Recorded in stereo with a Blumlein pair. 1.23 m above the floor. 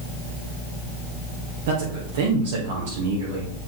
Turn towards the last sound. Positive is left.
turn(degrees=-55)